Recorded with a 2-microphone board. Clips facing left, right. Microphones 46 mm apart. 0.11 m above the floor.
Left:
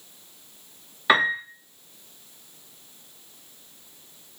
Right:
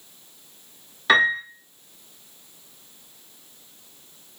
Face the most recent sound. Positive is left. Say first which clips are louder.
# right 2 dB
turn(degrees=15)  # may be behind; listen again after turning